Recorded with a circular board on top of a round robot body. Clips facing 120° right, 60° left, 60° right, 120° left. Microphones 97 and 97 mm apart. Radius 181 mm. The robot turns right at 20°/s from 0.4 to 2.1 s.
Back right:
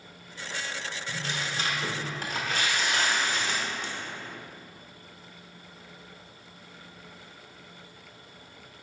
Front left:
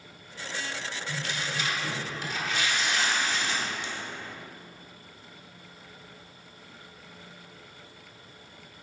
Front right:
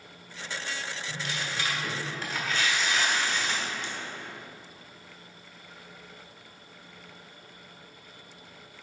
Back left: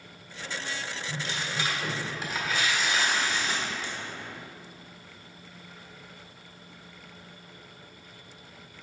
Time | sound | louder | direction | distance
1.1 | tearing paper | even, back left 1 dB | straight behind | 1.4 m